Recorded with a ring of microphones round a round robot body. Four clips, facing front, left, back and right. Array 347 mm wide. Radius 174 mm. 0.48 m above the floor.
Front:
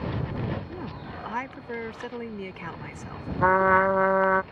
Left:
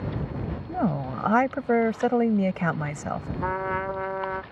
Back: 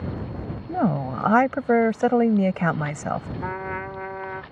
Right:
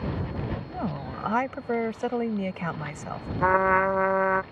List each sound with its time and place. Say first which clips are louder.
0.7 s a woman speaking: left 6 dB, back 14 dB; 160° left
3.4 s a trumpet: right 8 dB, front 11 dB; 30° right